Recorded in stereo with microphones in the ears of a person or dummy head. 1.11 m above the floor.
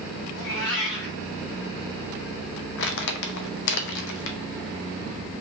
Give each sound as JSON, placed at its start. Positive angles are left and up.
{"t": 0.3, "sound": "a cat meowing", "side_deg": 65, "distance_m": 1.3}
{"t": 2.8, "sound": "crumpling", "side_deg": 65, "distance_m": 0.7}